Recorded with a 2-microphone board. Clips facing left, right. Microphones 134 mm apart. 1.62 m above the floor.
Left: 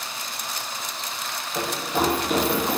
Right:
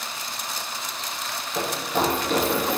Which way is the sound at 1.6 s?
5° left (ahead or behind).